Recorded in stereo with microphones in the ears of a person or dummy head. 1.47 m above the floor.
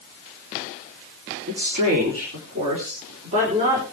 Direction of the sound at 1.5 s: 55° right (ahead or behind).